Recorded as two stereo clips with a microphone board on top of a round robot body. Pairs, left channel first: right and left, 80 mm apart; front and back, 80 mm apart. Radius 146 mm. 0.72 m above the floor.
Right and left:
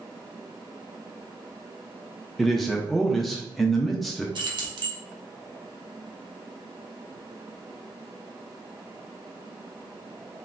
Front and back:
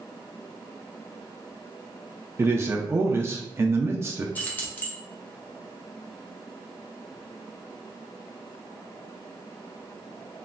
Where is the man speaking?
Straight behind, 0.6 m.